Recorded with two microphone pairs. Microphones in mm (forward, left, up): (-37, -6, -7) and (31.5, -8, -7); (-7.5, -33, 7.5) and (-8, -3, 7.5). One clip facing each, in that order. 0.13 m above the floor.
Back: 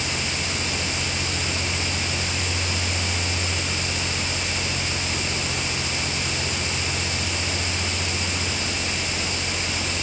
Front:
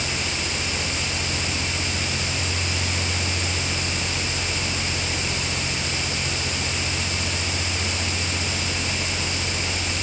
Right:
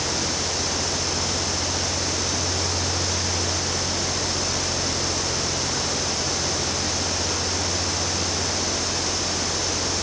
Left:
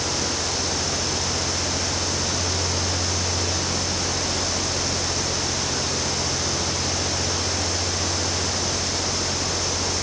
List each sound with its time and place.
Only background noise.